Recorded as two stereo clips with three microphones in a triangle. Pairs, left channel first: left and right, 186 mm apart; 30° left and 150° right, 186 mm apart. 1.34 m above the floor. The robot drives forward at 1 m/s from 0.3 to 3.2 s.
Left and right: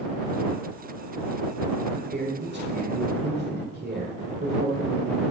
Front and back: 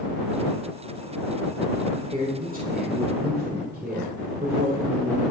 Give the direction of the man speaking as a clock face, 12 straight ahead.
3 o'clock.